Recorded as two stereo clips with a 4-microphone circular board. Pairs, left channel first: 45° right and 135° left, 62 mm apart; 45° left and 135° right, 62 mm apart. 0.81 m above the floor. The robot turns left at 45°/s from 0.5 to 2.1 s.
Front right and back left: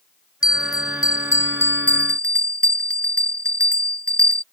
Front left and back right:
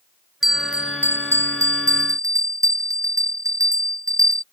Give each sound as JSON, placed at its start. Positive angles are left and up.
{"t": 0.4, "sound": "a bell", "azimuth_deg": -50}